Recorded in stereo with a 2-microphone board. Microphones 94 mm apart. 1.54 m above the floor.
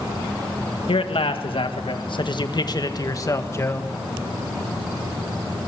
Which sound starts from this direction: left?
A man speaking, at 0.9 s.